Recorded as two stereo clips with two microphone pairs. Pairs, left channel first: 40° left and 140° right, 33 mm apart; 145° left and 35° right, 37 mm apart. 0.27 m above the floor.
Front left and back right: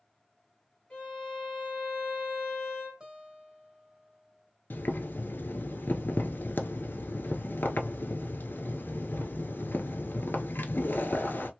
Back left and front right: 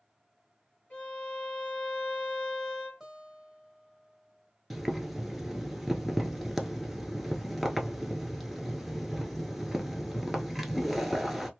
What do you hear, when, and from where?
0.9 s a violin: 100° left, 1.9 m
3.0 s a guitar: 105° right, 1.2 m
4.7 s boiling: 50° left, 0.9 m